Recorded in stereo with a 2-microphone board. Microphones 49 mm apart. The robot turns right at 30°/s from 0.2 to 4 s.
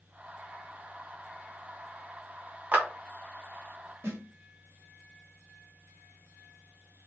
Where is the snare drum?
45° right (ahead or behind), 1.2 m.